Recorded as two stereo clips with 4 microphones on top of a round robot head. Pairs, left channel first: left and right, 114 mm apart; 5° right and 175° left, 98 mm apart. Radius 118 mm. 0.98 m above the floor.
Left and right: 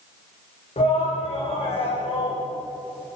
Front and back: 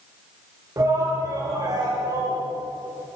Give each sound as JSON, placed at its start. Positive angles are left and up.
{"t": 0.8, "sound": "a shout", "azimuth_deg": 120, "distance_m": 5.0}